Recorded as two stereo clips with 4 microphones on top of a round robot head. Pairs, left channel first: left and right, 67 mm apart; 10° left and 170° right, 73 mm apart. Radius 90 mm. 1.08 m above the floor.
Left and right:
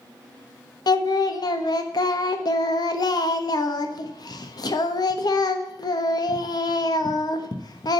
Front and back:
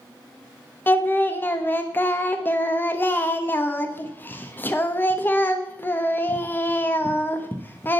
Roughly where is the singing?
Left.